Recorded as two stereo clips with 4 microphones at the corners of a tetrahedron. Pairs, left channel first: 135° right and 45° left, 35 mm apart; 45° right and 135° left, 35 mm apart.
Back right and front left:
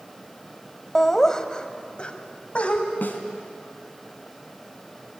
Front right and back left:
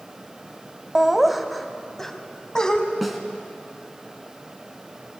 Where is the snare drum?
135° right, 2 m.